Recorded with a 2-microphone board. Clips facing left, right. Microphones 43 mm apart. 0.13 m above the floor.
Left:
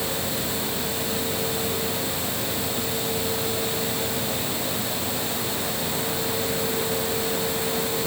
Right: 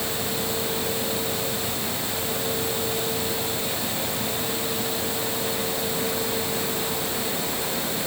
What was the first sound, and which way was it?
Only background noise.